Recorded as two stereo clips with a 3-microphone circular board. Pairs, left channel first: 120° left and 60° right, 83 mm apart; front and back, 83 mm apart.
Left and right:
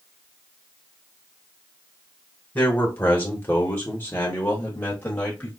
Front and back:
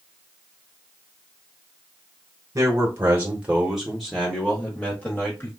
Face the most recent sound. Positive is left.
turn(degrees=55)